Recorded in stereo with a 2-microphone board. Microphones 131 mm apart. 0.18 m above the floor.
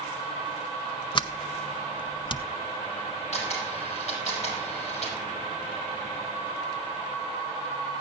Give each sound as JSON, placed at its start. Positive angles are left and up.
{"t": 1.1, "sound": "a sliding door", "side_deg": 35, "distance_m": 0.6}
{"t": 3.3, "sound": "a camera shutter", "side_deg": 55, "distance_m": 6.0}